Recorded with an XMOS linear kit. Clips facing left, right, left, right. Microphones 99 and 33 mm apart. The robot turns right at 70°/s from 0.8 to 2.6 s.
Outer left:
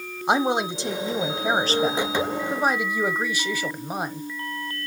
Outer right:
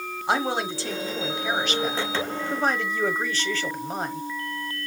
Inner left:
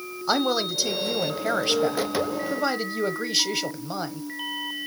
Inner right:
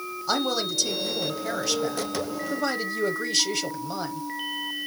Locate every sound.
0.3 s a woman speaking: 35° left, 1.2 m; by 4.3 s 160° left, 1.2 m